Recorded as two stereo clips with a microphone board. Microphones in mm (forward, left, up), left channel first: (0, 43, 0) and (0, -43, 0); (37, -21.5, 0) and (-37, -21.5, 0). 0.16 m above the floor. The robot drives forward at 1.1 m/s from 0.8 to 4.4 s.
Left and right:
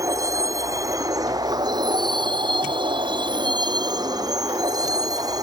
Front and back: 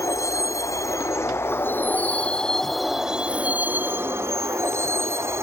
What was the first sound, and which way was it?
A vehicle, 45° right.